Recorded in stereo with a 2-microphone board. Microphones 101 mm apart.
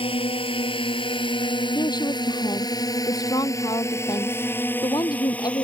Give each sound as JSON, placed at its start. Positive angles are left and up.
{"t": 0.0, "sound": "a drone", "side_deg": 65}
{"t": 1.8, "sound": "a woman speaking", "side_deg": 40}